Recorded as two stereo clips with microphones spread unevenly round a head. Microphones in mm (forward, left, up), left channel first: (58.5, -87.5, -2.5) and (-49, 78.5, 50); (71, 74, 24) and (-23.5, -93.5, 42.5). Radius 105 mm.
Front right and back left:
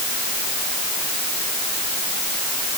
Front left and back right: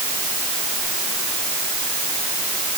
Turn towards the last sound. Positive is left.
No sound to turn to.